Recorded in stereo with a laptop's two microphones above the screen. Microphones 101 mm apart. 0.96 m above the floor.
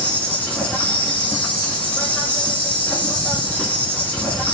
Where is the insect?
15° left (ahead or behind), 1.8 m.